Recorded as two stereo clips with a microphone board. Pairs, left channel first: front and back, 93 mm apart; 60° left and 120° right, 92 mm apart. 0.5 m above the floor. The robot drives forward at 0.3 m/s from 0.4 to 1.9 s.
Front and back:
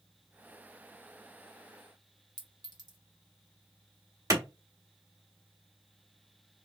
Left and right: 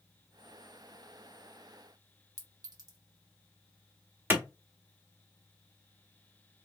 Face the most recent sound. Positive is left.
turn(degrees=-175)